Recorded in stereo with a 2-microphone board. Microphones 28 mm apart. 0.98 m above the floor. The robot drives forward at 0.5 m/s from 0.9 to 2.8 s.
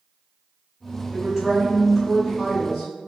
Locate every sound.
1.1 s a woman speaking: 30° right (ahead or behind), 1.3 m; by 2.9 s 15° right (ahead or behind), 2 m